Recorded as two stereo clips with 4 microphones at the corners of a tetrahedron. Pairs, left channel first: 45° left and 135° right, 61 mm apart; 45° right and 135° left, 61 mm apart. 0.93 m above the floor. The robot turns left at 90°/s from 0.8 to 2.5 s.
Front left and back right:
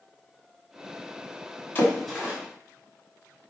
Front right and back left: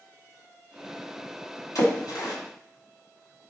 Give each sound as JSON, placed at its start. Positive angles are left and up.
{"t": 1.8, "sound": "a splash", "azimuth_deg": -10, "distance_m": 1.8}